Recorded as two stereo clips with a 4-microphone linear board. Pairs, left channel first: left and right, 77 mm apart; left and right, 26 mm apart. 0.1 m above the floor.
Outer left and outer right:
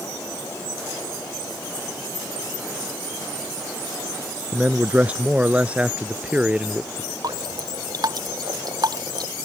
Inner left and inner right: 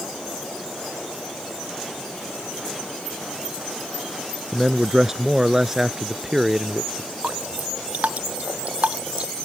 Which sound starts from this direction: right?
Dripping, at 7.2 s.